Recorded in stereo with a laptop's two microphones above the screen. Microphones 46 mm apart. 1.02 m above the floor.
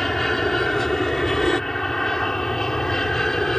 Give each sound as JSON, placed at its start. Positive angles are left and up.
{"t": 0.0, "sound": "an aircraft", "side_deg": 5}